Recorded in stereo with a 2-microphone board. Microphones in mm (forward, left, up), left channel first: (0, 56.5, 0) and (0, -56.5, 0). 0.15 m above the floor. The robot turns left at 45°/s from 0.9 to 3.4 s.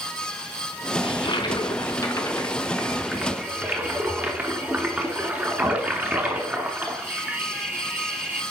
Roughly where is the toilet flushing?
Left.